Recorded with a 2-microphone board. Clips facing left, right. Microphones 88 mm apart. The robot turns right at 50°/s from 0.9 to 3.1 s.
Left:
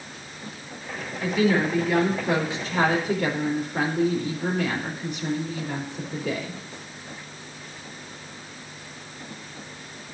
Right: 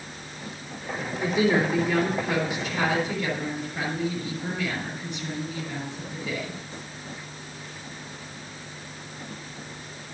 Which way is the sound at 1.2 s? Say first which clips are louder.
Left 1 dB; 30° right.